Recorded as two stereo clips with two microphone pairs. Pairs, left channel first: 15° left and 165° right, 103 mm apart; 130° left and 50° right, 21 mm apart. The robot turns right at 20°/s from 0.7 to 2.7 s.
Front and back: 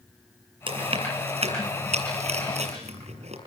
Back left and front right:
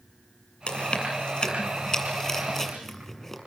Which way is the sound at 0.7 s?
160° left.